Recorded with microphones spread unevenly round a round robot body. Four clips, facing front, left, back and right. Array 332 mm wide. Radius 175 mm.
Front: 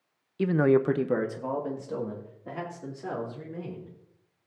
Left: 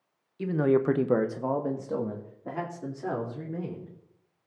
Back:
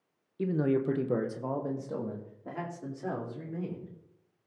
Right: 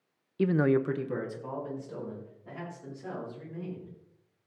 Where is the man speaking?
35° right, 0.7 m; by 3.9 s 95° left, 4.5 m.